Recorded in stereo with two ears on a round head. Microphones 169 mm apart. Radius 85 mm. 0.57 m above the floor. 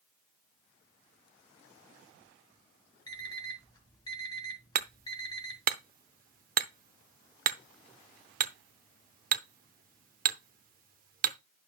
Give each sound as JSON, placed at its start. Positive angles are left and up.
{"t": 3.1, "sound": "an alarm clock", "side_deg": 20, "distance_m": 1.9}
{"t": 4.8, "sound": "hammering", "side_deg": -45, "distance_m": 0.6}